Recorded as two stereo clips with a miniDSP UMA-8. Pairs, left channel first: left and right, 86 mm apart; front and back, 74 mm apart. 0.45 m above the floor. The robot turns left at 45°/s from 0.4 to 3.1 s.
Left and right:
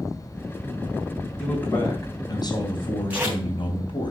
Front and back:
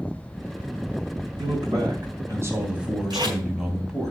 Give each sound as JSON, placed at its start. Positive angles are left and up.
{"t": 1.4, "sound": "a man speaking", "azimuth_deg": 170, "distance_m": 3.5}
{"t": 3.1, "sound": "tape being pulled", "azimuth_deg": -160, "distance_m": 3.5}